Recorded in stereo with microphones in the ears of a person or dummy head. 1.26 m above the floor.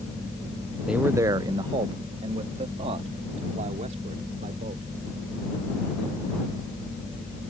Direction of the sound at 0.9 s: 5° right (ahead or behind).